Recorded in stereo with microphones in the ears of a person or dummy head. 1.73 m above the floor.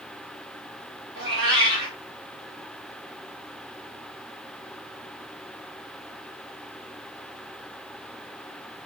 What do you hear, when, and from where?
1.1 s a cat meowing: 25° right (ahead or behind), 1.4 m